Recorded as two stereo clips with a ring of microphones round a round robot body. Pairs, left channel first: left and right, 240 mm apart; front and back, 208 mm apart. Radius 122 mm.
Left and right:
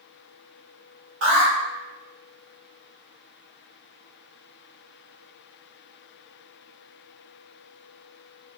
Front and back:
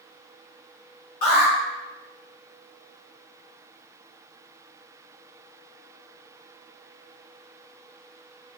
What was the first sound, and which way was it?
An alarm, 55° right.